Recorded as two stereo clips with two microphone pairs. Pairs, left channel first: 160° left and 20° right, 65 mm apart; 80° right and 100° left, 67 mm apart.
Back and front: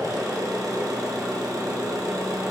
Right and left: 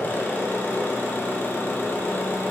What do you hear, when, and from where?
0.0 s an engine running: 25° right, 1.4 m